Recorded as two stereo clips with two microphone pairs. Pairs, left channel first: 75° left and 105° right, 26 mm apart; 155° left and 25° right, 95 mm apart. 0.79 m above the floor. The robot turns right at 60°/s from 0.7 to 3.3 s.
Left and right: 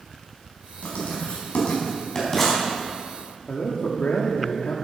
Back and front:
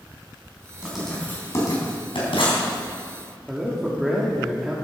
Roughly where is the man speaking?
Ahead left.